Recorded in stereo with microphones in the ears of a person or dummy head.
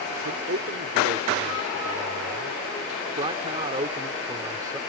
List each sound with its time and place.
0.2 s a man speaking: 55° right (ahead or behind); by 4.8 s 20° right (ahead or behind)